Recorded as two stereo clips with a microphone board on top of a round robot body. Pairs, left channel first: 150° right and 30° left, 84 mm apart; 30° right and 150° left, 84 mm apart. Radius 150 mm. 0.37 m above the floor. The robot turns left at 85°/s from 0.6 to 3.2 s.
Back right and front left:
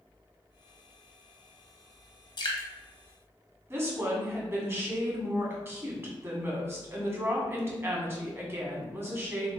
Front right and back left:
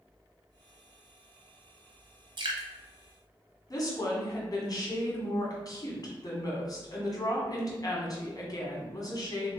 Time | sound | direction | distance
2.4 | dripping | straight behind | 1.2 m
3.7 | a woman speaking | 20° right | 1.9 m